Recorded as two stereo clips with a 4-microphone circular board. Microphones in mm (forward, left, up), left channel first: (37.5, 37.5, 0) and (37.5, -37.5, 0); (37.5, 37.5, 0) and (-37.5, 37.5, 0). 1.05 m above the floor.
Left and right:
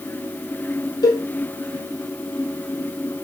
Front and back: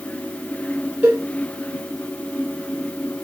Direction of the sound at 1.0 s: 110° left.